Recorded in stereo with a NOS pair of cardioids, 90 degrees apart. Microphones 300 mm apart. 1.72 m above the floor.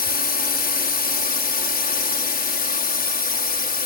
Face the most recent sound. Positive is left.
turn(degrees=30)